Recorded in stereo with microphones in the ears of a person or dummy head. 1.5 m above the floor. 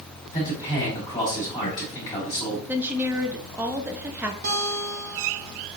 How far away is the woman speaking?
About 0.5 m.